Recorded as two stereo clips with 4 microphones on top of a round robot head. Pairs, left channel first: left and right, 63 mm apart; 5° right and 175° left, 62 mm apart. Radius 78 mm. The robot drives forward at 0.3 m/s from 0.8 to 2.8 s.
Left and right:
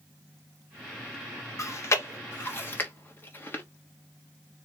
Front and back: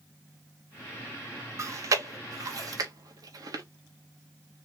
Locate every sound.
1.6 s chewing: 130° left, 0.7 m; by 3.6 s 150° left, 1.0 m